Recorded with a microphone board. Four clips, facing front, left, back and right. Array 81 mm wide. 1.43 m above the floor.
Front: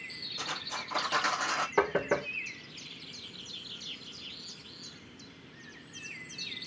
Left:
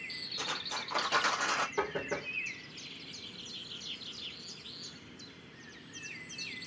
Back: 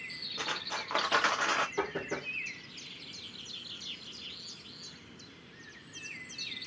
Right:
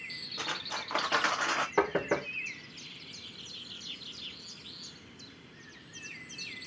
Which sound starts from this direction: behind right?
Cutlery clinking, at 0.4 s.